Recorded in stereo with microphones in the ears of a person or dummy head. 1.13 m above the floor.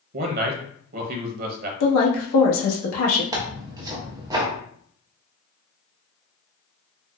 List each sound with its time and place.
0.1 s a man speaking: 45° right (ahead or behind), 0.6 m
1.8 s a woman speaking: 80° left, 1.0 m
3.3 s tearing paper: 20° right (ahead or behind), 0.7 m